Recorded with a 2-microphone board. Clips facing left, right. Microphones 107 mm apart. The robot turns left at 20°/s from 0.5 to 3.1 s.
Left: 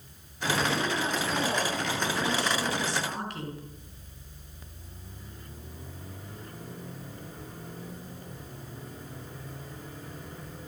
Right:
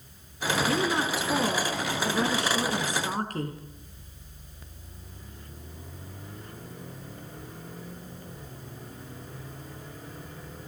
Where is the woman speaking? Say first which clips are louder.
Right 3 dB; 85° right, 5 m; by 3.6 s 135° right, 5 m.